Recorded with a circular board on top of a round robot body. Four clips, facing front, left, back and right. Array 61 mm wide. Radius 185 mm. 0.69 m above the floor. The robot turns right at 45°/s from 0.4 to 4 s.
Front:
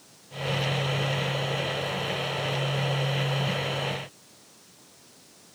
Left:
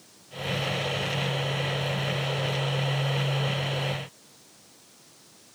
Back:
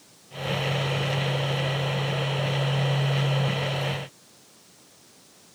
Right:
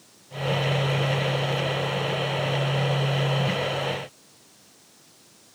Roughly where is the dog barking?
No dog barking in this recording.